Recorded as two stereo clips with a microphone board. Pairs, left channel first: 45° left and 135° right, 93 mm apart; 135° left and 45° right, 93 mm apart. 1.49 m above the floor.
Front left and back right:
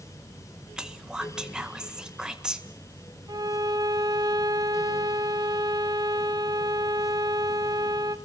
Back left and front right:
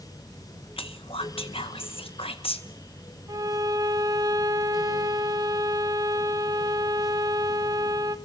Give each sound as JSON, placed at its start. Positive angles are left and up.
{"t": 0.8, "sound": "whispering", "azimuth_deg": 145, "distance_m": 1.6}
{"t": 3.3, "sound": "a violin", "azimuth_deg": -95, "distance_m": 2.0}